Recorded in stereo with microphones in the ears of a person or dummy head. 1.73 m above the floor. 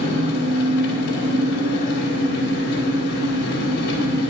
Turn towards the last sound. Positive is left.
turn(degrees=60)  # may be behind; listen again after turning